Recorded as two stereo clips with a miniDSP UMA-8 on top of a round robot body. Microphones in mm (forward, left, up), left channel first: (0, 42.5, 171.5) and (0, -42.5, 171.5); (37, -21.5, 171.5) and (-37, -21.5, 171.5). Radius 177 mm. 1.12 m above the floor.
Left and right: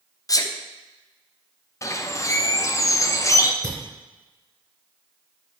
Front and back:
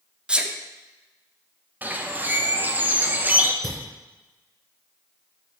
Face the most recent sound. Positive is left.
turn(degrees=115)